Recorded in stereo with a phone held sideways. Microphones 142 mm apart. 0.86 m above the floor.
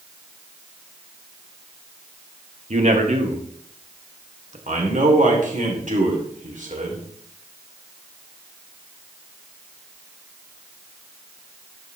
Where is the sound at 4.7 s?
55° right (ahead or behind), 2.5 m.